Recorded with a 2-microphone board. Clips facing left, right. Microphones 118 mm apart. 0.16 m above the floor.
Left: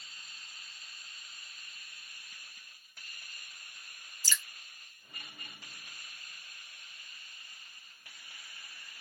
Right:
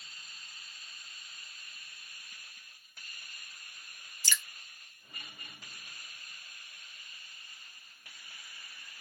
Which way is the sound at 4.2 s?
70° right (ahead or behind).